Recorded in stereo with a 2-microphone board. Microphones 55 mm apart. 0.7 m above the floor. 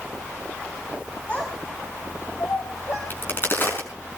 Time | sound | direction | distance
1.3 | a child speaking | 20° left (ahead or behind) | 3.5 m
3.1 | a crack | 40° left (ahead or behind) | 5 m